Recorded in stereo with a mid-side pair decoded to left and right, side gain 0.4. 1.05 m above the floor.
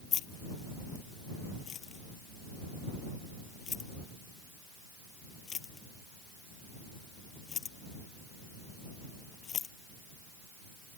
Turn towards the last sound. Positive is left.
turn(degrees=45)